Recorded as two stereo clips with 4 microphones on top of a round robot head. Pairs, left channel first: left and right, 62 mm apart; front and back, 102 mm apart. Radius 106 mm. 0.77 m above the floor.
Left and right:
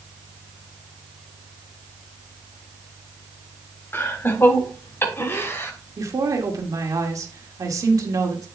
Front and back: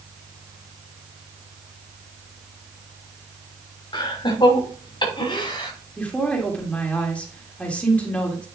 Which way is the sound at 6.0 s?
75° right.